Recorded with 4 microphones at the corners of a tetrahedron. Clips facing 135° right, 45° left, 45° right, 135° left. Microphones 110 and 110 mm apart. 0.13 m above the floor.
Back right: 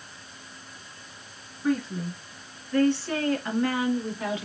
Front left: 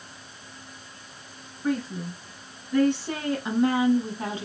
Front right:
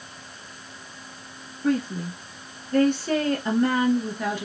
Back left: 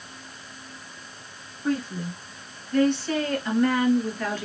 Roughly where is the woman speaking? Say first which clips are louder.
Back right 1 dB, front right 3 dB; ahead right.